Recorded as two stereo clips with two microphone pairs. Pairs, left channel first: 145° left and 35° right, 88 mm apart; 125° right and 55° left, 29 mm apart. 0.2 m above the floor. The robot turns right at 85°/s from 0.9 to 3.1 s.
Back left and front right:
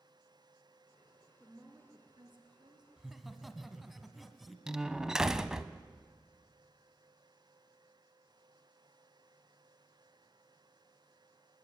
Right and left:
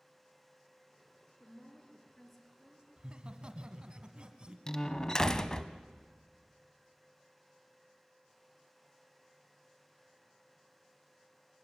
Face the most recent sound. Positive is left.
turn(degrees=-110)